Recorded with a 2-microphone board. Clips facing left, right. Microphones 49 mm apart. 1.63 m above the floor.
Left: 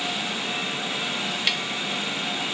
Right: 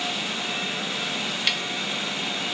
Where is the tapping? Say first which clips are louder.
Even; 5° left (ahead or behind), 1.0 m.